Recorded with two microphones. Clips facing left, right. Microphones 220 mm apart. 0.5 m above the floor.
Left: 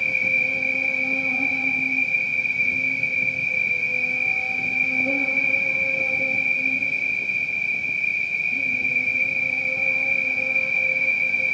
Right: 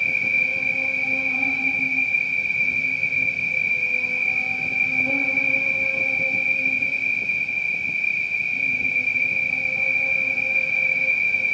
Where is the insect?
50° left (ahead or behind), 1.1 m.